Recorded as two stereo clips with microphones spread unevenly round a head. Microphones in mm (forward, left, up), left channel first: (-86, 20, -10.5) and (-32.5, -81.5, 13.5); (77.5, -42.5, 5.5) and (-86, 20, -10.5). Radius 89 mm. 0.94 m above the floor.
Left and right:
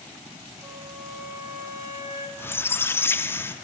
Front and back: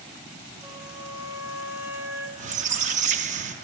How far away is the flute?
About 1.0 m.